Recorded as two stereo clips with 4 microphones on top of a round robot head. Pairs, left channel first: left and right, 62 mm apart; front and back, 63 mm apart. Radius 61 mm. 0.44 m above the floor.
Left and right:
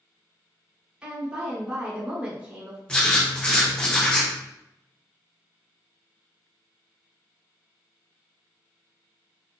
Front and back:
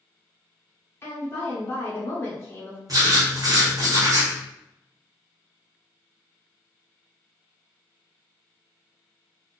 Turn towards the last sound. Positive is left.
turn(degrees=160)